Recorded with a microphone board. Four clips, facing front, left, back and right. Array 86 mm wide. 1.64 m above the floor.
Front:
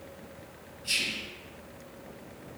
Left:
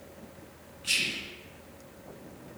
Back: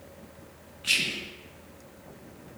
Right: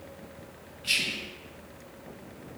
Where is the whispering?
175° right, 0.9 m.